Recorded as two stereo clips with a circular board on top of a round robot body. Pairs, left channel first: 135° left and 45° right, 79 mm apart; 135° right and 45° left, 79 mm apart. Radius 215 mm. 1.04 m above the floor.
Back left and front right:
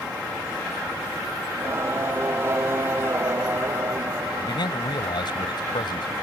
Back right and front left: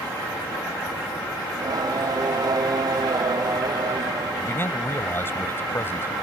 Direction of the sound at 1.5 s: 10° left.